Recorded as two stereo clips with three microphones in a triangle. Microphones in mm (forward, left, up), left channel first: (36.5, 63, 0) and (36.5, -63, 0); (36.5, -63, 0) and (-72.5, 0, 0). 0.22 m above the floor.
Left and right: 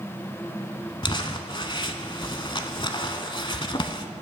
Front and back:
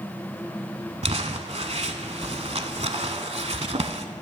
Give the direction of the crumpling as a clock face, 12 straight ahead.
8 o'clock.